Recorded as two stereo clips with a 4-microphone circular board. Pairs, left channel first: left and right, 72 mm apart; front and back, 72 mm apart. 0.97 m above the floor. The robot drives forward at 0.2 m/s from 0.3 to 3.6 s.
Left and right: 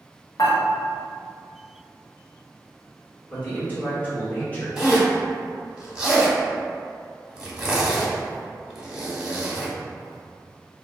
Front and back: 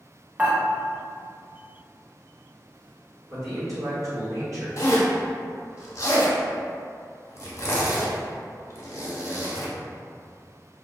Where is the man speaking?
150° left, 1.3 m.